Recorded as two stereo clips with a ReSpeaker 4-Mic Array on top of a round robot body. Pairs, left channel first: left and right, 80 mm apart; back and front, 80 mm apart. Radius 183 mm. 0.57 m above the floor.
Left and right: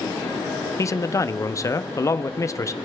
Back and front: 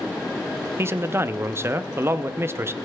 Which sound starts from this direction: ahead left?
A man speaking, at 0.8 s.